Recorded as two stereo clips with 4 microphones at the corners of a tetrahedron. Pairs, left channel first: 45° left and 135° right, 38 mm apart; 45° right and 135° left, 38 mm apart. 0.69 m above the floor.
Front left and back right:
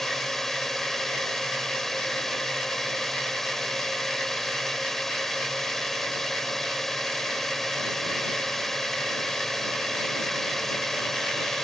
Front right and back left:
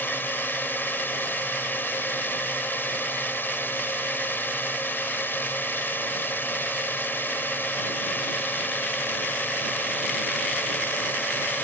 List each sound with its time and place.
0.0 s a drone: 35° right